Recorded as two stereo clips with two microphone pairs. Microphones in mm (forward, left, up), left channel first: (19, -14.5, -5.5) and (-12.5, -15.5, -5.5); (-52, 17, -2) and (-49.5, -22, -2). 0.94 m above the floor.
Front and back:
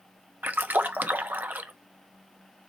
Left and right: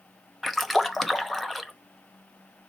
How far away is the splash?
About 0.8 m.